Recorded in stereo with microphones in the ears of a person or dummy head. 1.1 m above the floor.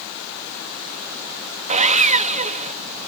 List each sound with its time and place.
1.7 s sawing: 35° right (ahead or behind)